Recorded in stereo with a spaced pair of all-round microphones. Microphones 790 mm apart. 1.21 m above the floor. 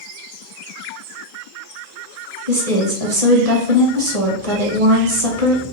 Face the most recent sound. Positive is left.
turn(degrees=-45)  # may be behind; listen again after turning